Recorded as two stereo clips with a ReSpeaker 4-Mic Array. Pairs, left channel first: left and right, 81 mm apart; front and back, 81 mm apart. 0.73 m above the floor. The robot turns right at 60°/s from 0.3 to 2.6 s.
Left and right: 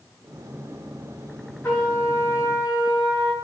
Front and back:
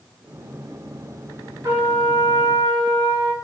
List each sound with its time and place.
1.6 s a trumpet: 145° left, 1.9 m; by 3.3 s 155° right, 1.9 m